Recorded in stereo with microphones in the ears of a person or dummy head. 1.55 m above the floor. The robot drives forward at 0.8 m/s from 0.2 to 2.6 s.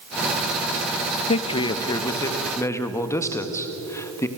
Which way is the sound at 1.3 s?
35° left (ahead or behind).